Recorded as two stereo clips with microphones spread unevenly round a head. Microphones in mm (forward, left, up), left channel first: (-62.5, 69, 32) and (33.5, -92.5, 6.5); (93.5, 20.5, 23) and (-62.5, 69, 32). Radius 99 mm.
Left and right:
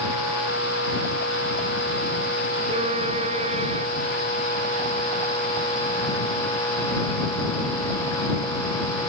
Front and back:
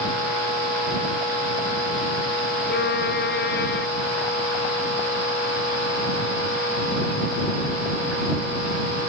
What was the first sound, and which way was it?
A violin, 5° left.